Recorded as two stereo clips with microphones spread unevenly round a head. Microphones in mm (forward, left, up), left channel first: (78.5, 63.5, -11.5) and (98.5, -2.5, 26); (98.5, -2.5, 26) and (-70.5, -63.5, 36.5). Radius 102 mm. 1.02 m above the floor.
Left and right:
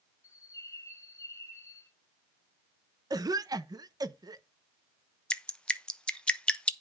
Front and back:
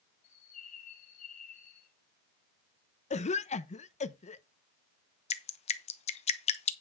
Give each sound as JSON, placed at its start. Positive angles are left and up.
{"t": 0.2, "sound": "a bird", "azimuth_deg": 70, "distance_m": 2.0}
{"t": 3.1, "sound": "a cough", "azimuth_deg": -25, "distance_m": 0.8}
{"t": 5.3, "sound": "dripping", "azimuth_deg": 60, "distance_m": 0.9}